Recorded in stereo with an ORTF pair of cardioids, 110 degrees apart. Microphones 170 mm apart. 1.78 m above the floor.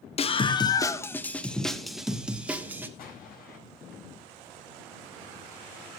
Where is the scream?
35° left, 1.3 m; by 2.9 s 10° right, 2.5 m.